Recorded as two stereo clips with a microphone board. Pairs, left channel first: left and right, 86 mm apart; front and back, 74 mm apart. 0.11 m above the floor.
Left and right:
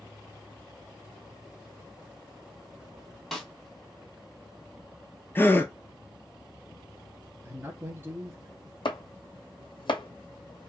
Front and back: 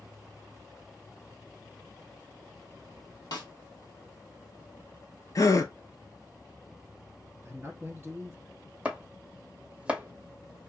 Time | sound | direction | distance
3.3 | a snare drum | 5° left | 1.4 m
5.3 | a gasp | 30° left | 0.5 m
7.5 | a man speaking | 130° right | 1.3 m
8.8 | chopping | 105° left | 0.6 m